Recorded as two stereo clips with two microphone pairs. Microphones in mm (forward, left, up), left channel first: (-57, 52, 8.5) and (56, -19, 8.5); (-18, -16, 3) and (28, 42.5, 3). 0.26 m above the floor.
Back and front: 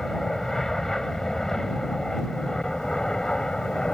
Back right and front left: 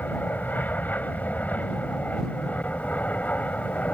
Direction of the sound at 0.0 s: 130° right.